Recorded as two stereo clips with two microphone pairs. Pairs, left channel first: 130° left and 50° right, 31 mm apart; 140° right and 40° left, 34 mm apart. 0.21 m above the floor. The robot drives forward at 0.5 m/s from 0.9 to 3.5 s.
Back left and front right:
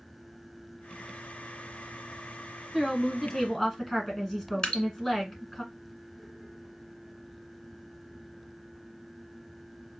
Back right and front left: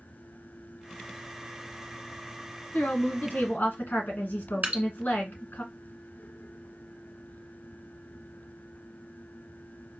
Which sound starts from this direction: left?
Dripping, at 4.6 s.